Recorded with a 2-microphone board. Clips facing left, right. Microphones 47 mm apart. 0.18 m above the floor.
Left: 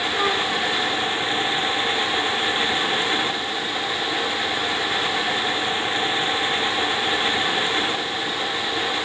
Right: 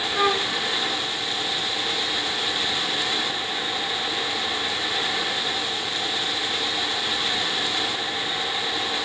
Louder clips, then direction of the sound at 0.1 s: Right 1 dB; 15° right (ahead or behind).